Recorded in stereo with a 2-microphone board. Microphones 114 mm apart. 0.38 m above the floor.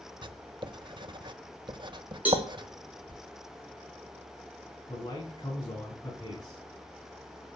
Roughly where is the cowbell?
Centre.